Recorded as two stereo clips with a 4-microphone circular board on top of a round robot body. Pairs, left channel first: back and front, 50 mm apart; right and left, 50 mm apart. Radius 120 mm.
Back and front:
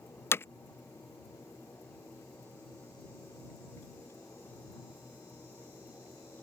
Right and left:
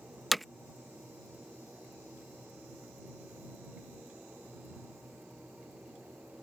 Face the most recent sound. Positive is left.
turn(degrees=180)